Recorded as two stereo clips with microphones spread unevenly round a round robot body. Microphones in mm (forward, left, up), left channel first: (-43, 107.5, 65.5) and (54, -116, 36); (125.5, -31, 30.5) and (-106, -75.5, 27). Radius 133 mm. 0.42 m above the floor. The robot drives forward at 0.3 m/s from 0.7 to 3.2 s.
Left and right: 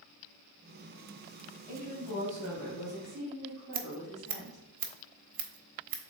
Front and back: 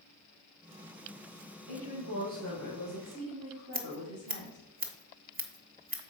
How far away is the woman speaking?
About 3 m.